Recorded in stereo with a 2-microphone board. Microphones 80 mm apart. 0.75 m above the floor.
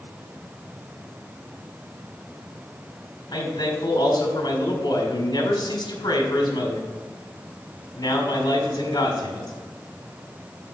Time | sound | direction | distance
3.3 | a man speaking | 60° left (ahead or behind) | 1.9 m